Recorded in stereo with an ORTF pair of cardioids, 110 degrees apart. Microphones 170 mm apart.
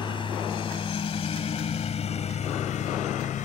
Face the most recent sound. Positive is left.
turn(degrees=55)